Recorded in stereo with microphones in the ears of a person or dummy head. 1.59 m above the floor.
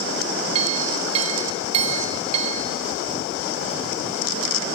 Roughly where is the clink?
Right.